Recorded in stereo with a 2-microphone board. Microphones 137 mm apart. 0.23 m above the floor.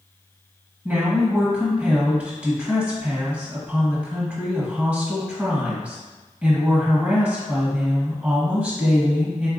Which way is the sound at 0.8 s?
10° right (ahead or behind).